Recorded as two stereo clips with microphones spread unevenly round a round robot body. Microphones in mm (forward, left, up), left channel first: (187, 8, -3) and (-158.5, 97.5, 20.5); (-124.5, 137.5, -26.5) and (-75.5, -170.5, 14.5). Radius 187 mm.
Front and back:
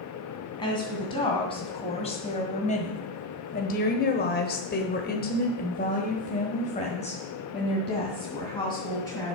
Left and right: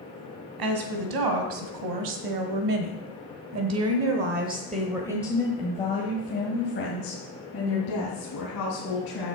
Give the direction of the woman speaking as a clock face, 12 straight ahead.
3 o'clock.